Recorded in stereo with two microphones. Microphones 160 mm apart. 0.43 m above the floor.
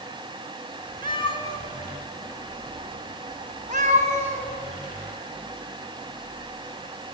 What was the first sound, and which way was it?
A cat meowing, 30° left (ahead or behind).